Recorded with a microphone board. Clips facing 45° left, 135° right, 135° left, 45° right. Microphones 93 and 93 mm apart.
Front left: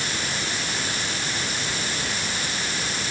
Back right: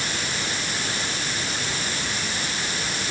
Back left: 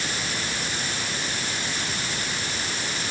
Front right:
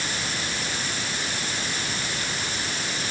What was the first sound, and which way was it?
Only background noise.